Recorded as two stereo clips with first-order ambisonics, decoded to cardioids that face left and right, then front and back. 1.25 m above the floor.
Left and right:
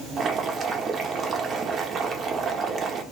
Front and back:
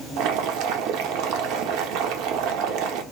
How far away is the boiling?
About 0.7 m.